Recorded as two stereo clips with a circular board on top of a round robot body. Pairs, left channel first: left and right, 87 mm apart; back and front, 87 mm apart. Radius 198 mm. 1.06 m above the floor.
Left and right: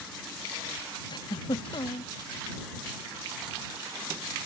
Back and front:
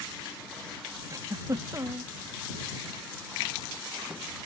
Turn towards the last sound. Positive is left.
turn(degrees=55)